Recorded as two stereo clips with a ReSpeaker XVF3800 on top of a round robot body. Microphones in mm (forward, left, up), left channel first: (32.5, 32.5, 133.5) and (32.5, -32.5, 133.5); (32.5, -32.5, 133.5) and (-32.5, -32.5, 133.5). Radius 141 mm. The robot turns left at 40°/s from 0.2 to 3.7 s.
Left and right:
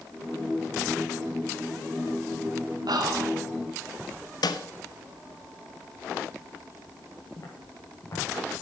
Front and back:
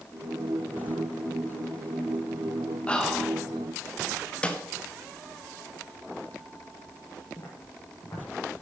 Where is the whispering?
75° right, 2.5 m; by 3.4 s 95° right, 2.5 m.